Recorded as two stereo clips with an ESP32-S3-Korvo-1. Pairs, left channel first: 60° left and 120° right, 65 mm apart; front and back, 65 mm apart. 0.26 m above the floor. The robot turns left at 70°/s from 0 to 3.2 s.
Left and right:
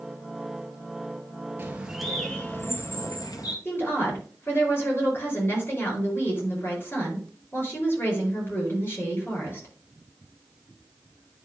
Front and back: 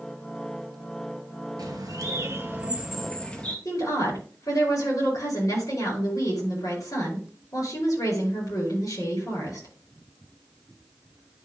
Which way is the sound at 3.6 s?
15° left.